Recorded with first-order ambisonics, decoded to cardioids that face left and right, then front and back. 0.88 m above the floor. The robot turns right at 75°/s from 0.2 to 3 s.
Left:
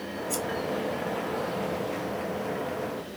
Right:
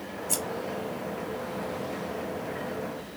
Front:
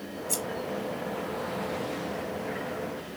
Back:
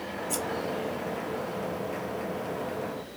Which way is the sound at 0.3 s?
55° right.